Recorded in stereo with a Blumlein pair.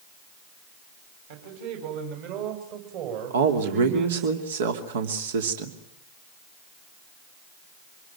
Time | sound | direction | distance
1.3 | a man speaking | 50° right | 8 m
3.3 | a man speaking | 60° right | 3 m